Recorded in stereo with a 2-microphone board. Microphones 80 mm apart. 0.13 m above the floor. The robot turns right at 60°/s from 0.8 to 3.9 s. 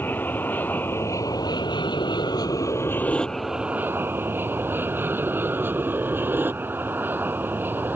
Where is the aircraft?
25° left (ahead or behind); by 8.0 s 25° right (ahead or behind).